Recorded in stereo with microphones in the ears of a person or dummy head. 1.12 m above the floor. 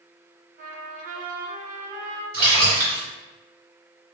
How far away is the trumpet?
About 0.9 m.